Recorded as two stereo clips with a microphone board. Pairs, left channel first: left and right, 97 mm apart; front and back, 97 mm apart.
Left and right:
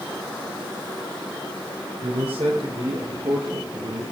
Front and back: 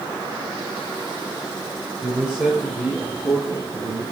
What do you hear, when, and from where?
2.0 s a man speaking: 110° right, 7.5 m